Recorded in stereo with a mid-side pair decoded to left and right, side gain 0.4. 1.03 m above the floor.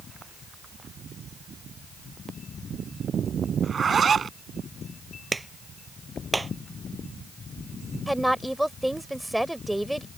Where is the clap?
20° right.